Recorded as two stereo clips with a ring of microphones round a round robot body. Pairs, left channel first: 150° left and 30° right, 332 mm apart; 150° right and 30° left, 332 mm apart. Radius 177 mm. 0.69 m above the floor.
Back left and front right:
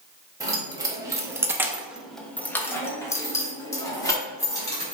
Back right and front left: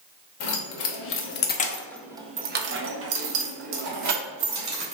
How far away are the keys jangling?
About 1.1 m.